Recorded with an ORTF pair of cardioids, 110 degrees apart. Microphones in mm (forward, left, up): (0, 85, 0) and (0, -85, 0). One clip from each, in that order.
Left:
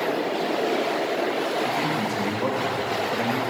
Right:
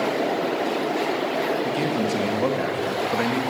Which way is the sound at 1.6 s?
30° right.